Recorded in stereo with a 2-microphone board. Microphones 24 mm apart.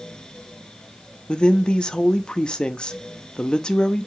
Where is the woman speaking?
35° left (ahead or behind), 0.5 m.